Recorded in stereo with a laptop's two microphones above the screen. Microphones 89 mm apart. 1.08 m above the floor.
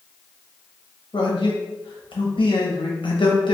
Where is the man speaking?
65° left (ahead or behind), 0.9 m.